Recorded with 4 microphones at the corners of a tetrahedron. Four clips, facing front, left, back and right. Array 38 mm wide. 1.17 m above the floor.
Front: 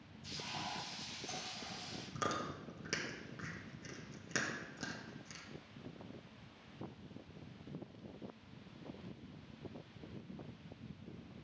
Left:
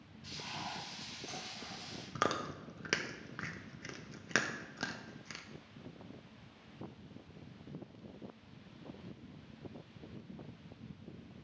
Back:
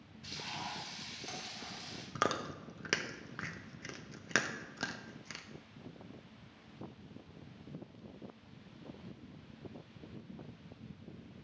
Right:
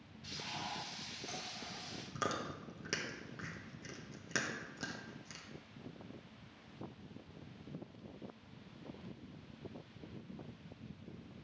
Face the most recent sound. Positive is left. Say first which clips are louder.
# left 4 dB, back 5 dB
turn(degrees=140)